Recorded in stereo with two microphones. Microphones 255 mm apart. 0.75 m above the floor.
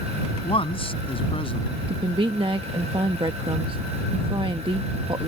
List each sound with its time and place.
0.4 s a man speaking: 20° left (ahead or behind)
1.9 s a woman speaking: 20° right (ahead or behind)